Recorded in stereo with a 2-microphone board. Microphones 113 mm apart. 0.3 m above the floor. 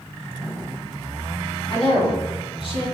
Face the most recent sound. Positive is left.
turn(degrees=45)  # may be behind; listen again after turning